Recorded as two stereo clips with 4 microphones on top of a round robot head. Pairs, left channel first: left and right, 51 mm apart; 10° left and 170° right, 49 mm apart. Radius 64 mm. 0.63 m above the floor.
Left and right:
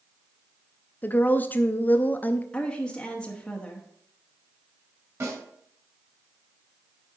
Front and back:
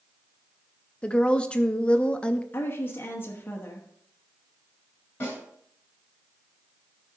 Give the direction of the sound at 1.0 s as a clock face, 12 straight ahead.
10 o'clock.